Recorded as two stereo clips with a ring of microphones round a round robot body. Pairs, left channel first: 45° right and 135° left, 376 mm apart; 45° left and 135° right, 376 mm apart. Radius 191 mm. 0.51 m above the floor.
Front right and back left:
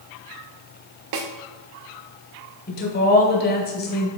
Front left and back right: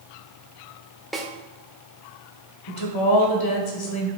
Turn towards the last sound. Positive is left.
turn(degrees=20)